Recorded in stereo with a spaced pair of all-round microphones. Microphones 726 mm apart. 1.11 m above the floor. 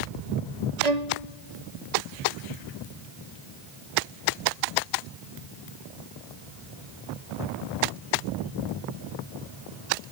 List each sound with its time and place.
0.8 s a violin: 60° right (ahead or behind), 1.0 m